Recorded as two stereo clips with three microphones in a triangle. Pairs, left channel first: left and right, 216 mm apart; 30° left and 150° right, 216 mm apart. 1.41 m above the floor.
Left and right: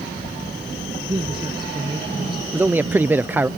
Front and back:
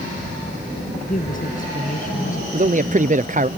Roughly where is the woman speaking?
Ahead.